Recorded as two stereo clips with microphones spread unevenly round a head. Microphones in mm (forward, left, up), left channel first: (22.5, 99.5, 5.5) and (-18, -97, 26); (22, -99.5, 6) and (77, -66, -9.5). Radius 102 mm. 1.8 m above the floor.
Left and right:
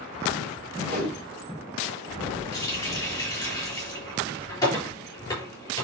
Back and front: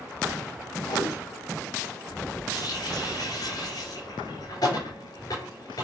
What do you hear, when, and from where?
0.8 s a whoosh: 160° left, 6.5 m
2.5 s a running tap: 155° left, 5 m